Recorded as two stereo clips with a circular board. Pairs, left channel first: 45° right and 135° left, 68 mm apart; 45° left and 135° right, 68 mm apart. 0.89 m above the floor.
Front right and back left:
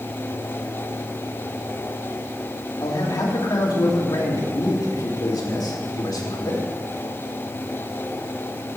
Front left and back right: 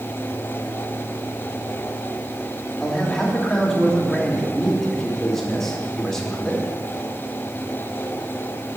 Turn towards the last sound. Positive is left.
turn(degrees=-40)